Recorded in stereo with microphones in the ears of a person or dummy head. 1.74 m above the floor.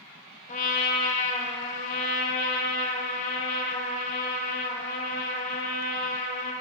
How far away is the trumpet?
About 1.1 m.